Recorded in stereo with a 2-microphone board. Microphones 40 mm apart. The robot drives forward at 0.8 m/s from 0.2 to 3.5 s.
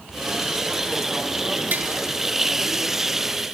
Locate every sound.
1.7 s tapping: 50° right (ahead or behind), 1.3 m; by 1.9 s 45° right (ahead or behind), 1.4 m